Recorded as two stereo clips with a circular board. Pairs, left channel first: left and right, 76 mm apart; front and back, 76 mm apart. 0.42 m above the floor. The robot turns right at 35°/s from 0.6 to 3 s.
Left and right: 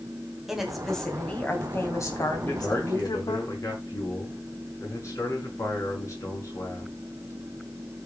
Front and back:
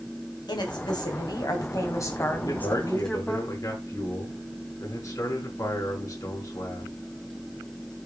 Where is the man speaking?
20° left, 5 m; by 6.9 s 45° left, 5 m.